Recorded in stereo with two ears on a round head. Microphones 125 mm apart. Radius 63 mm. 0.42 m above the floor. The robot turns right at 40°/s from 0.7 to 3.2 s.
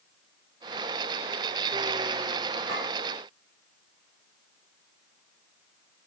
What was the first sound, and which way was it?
A clink, 80° right.